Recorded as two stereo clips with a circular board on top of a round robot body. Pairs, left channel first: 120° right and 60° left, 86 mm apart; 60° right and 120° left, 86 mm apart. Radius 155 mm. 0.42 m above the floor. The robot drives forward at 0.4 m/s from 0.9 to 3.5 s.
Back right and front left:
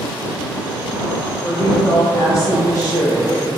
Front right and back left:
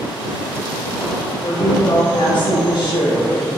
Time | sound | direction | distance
1.4 | a woman speaking | 55° right | 1.8 m